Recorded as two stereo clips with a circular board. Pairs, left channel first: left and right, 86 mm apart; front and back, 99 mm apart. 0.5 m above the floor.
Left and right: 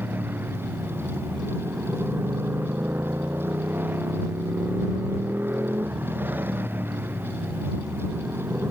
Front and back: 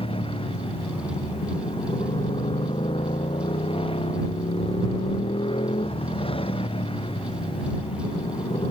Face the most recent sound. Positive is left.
turn(degrees=-25)